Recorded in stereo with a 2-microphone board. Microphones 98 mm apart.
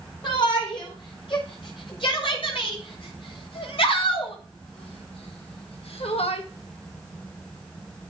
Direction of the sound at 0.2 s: 55° left (ahead or behind).